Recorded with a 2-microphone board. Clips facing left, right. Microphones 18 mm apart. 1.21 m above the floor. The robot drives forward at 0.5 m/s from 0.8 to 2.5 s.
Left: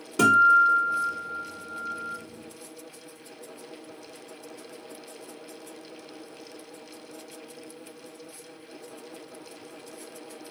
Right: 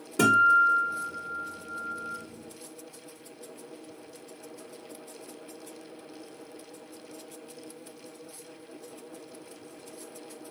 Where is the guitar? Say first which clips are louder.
Left 2 dB; 40° left (ahead or behind), 1.8 m; by 2.2 s 50° left (ahead or behind), 1.5 m.